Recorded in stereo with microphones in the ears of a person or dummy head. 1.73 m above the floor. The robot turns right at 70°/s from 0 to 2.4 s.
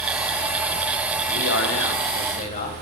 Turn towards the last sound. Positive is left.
turn(degrees=140)